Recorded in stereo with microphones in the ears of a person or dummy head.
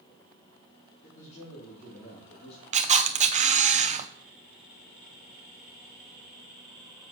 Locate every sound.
1.0 s a man speaking: 45° left (ahead or behind), 3.5 m; by 2.6 s 35° left (ahead or behind), 2 m
2.7 s a camera shutter: 35° right (ahead or behind), 0.6 m